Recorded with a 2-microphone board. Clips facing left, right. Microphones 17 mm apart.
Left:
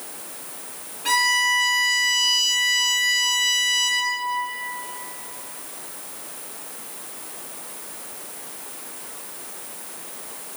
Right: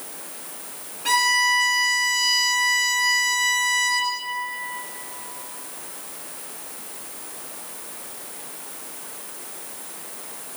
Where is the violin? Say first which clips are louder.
Even; centre (ahead or behind), 1.3 m.